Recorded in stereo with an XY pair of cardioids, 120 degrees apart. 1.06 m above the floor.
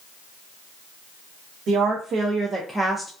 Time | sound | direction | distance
1.7 | a woman speaking | 70° right | 0.9 m